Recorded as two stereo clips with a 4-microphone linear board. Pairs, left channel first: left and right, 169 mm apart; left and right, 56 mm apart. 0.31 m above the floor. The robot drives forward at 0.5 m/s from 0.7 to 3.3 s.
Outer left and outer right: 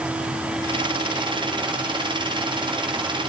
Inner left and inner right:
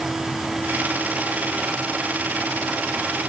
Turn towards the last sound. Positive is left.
No sound to turn to.